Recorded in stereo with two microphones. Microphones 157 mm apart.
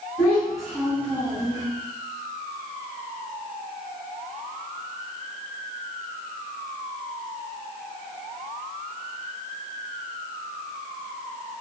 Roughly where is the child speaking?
Centre.